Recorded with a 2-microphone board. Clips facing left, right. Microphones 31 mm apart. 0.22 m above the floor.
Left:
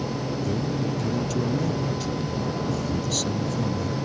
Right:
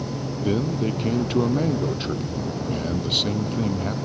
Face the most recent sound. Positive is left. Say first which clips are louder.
# right 7 dB
turn(degrees=-40)  # may be behind; listen again after turning